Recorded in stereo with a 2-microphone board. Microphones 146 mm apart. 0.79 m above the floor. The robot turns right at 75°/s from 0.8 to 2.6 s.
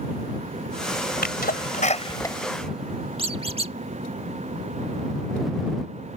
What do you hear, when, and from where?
1.2 s a sneeze: 80° left; by 3.5 s 5° right (ahead or behind)
3.2 s a squeak: 40° right (ahead or behind)